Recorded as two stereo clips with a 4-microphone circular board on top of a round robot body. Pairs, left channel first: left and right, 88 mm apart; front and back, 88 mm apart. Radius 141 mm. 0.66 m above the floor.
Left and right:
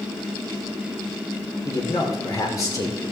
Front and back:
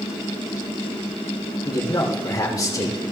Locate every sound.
1.6 s a man speaking: 45° left, 3 m